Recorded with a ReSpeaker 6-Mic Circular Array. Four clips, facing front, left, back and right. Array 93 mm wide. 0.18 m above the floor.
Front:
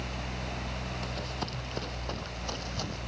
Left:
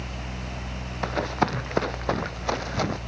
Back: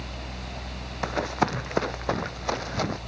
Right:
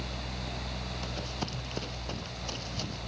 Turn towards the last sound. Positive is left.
turn(degrees=120)